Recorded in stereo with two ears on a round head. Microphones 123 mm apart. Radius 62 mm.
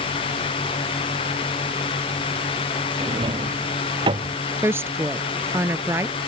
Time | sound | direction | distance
3.0 | a drawer | 40° right (ahead or behind) | ?
4.6 | a woman speaking | 20° right (ahead or behind) | ?